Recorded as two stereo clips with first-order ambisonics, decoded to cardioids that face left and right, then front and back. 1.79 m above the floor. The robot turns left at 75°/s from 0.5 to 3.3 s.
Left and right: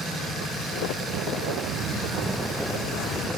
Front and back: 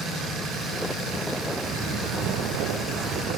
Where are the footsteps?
110° right, 6 m; by 3.3 s 110° left, 4.5 m.